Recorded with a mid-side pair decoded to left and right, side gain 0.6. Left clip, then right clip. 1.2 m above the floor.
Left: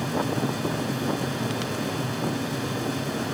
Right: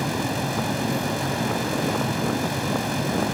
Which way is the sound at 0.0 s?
40° right.